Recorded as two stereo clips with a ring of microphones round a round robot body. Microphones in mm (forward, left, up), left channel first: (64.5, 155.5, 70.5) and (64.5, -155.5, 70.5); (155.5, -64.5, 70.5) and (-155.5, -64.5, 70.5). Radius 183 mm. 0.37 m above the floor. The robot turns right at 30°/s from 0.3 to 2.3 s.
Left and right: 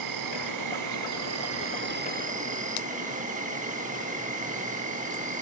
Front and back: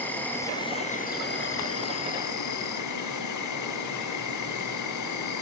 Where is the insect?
85° right, 5 m; by 5.4 s 25° right, 5 m.